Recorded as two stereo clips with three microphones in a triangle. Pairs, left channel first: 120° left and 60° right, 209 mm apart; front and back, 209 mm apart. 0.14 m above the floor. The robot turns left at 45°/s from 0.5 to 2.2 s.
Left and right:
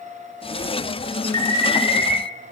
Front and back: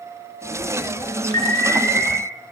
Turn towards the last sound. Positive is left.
turn(degrees=-100)